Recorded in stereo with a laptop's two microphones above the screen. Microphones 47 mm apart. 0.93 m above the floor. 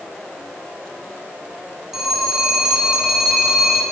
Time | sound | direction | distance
1.9 | a phone ringing | centre (ahead or behind) | 3 m